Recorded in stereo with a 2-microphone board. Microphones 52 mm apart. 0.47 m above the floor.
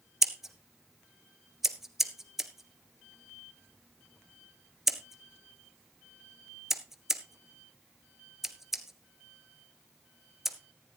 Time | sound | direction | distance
0.2 | scissors | 5° right (ahead or behind) | 1.4 m